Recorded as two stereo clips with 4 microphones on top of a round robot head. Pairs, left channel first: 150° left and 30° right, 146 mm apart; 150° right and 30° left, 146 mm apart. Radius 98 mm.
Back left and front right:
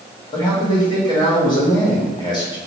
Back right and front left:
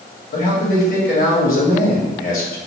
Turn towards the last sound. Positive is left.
turn(degrees=-155)